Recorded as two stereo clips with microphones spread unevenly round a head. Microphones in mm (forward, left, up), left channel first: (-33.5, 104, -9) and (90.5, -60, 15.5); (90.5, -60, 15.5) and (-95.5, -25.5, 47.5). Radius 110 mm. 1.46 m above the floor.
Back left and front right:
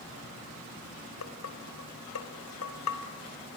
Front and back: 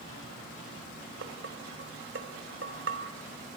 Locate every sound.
1.2 s dishes clattering: 135° left, 3.5 m